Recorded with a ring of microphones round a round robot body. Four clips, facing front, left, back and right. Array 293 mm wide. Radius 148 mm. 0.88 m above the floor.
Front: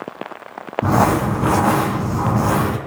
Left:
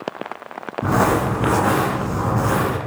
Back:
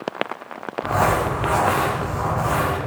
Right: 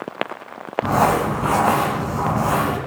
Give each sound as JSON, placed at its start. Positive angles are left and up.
{"t": 0.8, "sound": "crumpling", "azimuth_deg": 15, "distance_m": 2.5}